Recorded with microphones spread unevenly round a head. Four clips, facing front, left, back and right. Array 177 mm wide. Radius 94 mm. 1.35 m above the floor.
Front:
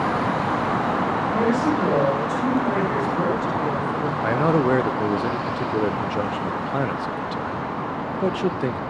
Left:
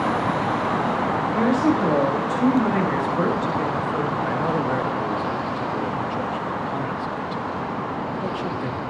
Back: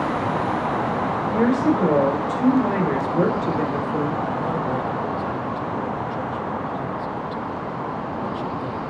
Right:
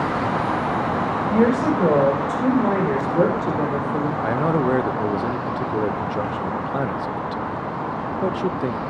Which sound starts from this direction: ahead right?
A man speaking, at 4.2 s.